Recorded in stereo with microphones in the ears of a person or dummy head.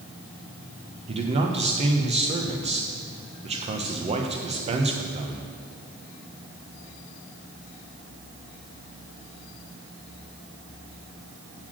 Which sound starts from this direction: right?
A man speaking, at 1.1 s.